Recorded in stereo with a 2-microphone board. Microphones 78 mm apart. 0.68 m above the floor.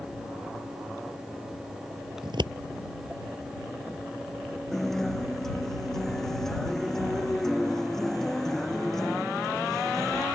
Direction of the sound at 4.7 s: 5° left (ahead or behind).